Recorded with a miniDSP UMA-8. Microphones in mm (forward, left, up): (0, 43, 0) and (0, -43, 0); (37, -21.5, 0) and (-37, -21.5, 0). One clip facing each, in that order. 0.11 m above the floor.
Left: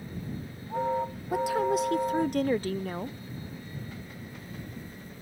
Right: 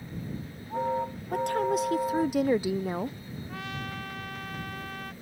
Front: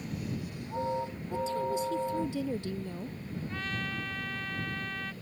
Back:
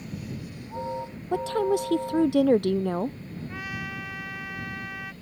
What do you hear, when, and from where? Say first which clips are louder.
1.3 s a woman speaking: left 1 dB, back 7 dB; 175° left; by 3.2 s 165° right
3.5 s a trumpet: right 5 dB, back 1 dB; 100° right